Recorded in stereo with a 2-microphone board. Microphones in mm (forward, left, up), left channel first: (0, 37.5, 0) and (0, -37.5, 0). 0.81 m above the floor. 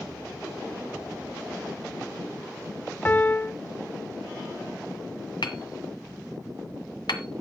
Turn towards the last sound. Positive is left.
turn(degrees=75)  # may be behind; listen again after turning